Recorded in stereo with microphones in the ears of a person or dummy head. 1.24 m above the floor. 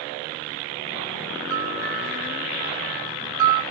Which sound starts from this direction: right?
A bell, at 1.5 s.